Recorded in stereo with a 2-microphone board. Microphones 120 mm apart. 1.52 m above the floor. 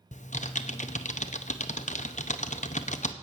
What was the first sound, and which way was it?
Typing on a keyboard, 75° left (ahead or behind).